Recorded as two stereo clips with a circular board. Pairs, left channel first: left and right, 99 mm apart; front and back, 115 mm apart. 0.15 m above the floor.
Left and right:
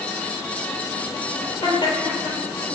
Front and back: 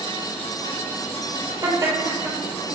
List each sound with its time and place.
1.6 s laughter: 120° left, 4 m; by 2.8 s 115° left, 3 m